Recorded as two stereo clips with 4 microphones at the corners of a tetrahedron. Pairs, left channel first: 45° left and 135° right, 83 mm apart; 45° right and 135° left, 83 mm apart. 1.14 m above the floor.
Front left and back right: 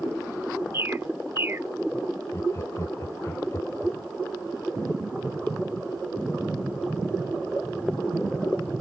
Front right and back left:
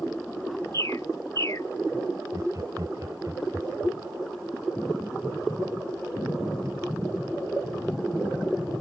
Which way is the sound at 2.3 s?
95° left.